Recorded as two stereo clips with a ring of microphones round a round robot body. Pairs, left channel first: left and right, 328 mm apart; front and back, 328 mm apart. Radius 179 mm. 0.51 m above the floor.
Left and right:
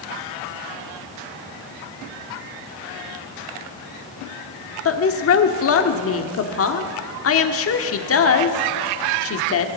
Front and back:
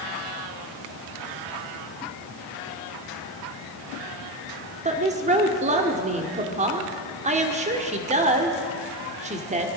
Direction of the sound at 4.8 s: 115° left.